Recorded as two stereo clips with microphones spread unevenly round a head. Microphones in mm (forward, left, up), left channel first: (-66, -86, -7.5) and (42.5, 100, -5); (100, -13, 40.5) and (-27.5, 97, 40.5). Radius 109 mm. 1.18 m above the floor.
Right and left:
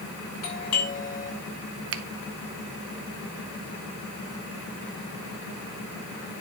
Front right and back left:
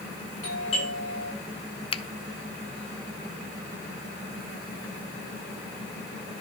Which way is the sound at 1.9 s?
20° left.